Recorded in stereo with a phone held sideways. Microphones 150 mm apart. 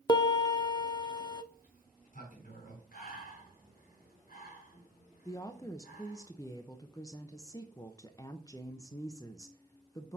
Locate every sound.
0.1 s a piano: 30° left (ahead or behind), 0.5 m
1.5 s a sliding door: 70° left (ahead or behind), 4 m
2.9 s breathing: 85° left, 3.5 m
5.2 s a woman speaking: 25° left (ahead or behind), 0.6 m